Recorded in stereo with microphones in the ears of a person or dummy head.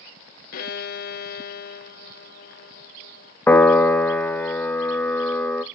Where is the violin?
50° left (ahead or behind), 0.6 m.